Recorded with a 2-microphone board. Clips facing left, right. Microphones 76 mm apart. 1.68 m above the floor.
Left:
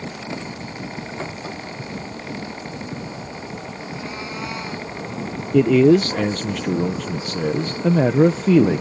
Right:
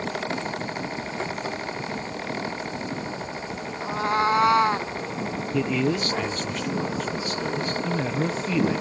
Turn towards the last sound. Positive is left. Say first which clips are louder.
# left 12 dB
turn(degrees=70)  # may be behind; listen again after turning